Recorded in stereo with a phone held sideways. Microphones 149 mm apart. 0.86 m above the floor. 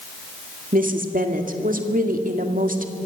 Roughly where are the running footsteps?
I don't hear running footsteps.